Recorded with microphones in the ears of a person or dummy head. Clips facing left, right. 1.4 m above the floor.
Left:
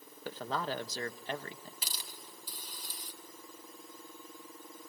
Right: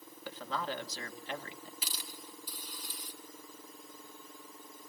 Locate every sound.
0.2 s a man speaking: 35° left (ahead or behind), 1.2 m
1.8 s a hiss: 35° left (ahead or behind), 2 m